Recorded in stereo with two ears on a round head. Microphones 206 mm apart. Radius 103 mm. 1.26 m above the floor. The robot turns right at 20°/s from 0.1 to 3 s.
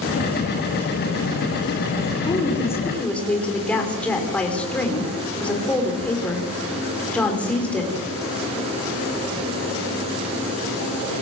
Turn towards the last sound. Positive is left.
turn(degrees=5)  # may be behind; listen again after turning